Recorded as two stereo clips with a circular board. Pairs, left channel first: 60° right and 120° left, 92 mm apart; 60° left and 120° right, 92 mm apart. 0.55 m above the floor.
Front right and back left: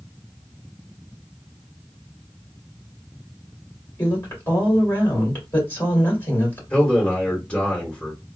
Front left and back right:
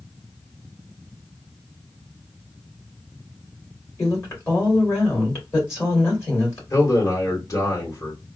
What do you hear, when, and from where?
4.0 s a woman speaking: 5° left, 2.5 m
6.7 s a man speaking: 15° left, 2 m